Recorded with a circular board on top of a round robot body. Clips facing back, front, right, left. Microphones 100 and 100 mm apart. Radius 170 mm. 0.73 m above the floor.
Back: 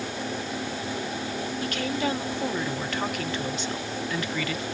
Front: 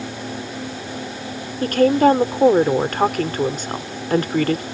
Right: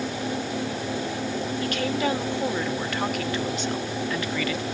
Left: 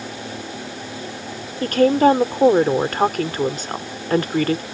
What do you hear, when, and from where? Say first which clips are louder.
1.6 s a woman speaking: front 16 dB, left 14 dB; 40° left